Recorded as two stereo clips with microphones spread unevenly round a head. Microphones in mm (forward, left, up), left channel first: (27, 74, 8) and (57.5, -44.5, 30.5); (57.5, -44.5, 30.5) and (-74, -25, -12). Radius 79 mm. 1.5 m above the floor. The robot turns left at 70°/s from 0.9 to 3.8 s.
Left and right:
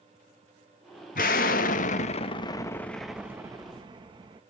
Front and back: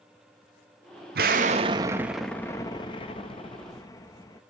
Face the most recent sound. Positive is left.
turn(degrees=-45)